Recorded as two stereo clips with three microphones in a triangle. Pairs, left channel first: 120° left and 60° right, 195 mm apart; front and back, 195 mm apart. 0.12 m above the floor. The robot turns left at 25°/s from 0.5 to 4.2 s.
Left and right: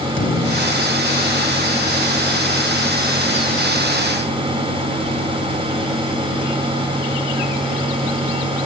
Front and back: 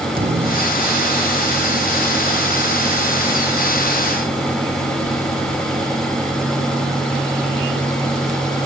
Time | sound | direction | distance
0.2 | a thud | 140° left | ?